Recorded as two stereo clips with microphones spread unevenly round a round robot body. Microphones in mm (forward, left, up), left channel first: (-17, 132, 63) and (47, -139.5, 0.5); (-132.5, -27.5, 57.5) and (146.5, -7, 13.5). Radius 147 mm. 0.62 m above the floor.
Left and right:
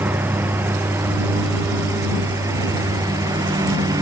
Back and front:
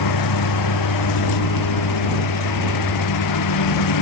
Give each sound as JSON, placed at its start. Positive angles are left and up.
{"t": 0.0, "sound": "a lawn mower", "azimuth_deg": -160}